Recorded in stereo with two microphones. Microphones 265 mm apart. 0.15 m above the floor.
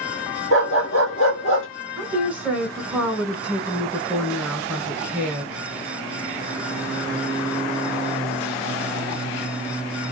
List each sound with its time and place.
0.5 s a dog barking: 50° left (ahead or behind), 1.2 m
2.0 s a woman speaking: 5° right (ahead or behind), 1.4 m